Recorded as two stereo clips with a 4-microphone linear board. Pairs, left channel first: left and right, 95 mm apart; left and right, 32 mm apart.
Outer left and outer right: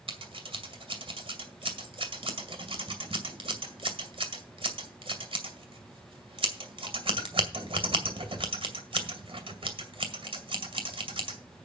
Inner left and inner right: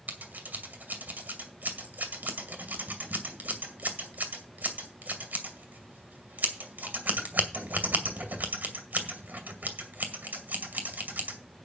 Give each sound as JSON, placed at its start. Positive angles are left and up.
{"t": 0.1, "sound": "scissors", "side_deg": -70, "distance_m": 2.0}